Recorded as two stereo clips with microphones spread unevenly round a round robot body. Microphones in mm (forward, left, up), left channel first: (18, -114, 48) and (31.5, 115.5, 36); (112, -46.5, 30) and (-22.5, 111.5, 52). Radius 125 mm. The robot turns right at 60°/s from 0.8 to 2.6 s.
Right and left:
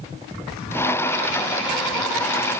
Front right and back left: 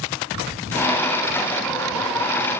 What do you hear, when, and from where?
Only background noise.